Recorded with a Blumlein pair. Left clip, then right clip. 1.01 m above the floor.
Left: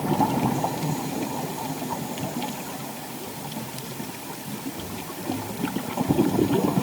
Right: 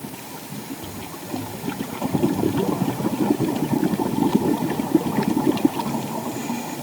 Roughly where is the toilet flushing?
No toilet flushing in this recording.